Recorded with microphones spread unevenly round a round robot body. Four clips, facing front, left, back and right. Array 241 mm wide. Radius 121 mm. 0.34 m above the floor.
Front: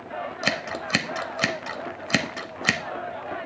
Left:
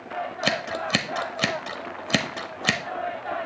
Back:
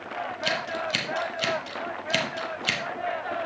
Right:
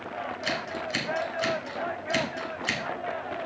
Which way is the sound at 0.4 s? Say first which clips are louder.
Left 7 dB, even; 55° left.